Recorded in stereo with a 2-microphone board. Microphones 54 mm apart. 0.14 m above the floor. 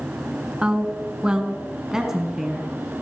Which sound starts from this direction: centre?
A woman speaking, at 0.6 s.